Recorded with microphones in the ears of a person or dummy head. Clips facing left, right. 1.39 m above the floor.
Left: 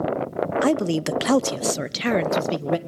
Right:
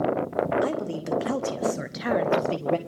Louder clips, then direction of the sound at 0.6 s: Left 7 dB; 60° left (ahead or behind).